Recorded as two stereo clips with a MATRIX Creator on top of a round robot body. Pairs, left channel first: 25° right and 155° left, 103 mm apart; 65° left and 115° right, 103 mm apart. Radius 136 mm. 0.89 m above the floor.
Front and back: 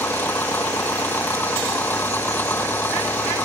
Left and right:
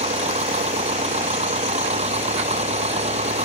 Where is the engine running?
95° right.